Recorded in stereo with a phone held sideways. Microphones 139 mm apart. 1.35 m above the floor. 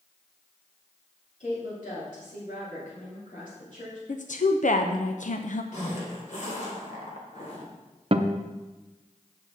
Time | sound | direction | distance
1.4 | a woman speaking | 85° left | 3.5 m
4.1 | a woman speaking | 70° left (ahead or behind) | 0.6 m
5.7 | a zipper | 65° left (ahead or behind) | 2 m
8.1 | a guitar | 50° right (ahead or behind) | 0.6 m